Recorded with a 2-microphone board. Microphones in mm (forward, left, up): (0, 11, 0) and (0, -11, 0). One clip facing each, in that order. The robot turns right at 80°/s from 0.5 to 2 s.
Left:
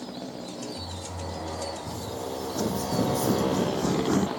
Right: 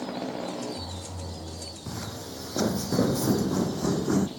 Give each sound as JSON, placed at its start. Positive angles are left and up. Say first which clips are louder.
{"t": 0.0, "sound": "a motorcycle", "louder": "right 4 dB", "azimuth_deg": -30}
{"t": 1.9, "sound": "footsteps", "louder": "left 4 dB", "side_deg": -30}